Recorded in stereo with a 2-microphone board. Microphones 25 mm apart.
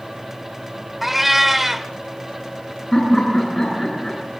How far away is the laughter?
About 9.5 m.